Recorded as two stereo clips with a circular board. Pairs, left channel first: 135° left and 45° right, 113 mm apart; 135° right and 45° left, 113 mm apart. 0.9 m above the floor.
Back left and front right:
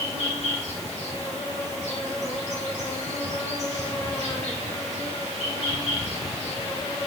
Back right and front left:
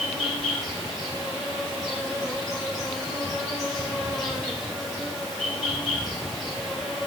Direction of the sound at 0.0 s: 135° left.